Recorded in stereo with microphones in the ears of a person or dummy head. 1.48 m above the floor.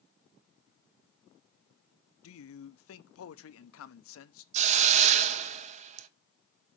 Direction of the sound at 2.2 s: 80° left.